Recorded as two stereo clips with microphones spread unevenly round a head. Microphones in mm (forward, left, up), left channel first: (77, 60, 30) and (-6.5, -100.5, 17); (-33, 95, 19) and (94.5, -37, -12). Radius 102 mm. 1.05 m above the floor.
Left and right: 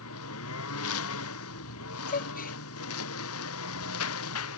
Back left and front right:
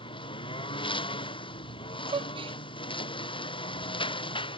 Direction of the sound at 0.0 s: 70° left.